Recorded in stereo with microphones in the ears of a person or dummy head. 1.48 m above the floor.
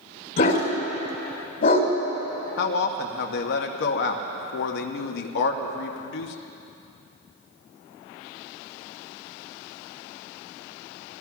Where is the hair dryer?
I don't hear a hair dryer.